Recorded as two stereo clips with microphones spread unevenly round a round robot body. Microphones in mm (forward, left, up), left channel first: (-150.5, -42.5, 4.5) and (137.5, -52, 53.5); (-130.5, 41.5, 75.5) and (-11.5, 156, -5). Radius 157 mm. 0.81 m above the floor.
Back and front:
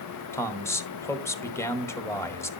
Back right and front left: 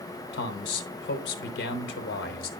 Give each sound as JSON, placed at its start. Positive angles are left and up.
{"t": 0.3, "sound": "a man speaking", "azimuth_deg": -110, "distance_m": 0.9}